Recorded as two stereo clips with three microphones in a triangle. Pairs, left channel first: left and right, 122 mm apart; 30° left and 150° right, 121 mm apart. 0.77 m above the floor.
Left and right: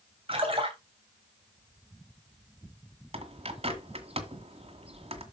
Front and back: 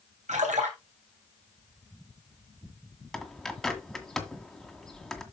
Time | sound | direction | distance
0.3 | a splash | 135° right | 3 m
3.1 | a bird | 60° right | 1.8 m